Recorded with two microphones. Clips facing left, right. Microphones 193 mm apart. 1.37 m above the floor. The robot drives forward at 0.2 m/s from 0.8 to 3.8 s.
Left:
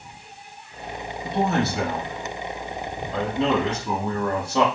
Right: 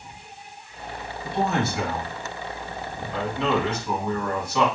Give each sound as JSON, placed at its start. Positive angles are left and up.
{"t": 1.2, "sound": "a man speaking", "side_deg": 40, "distance_m": 2.5}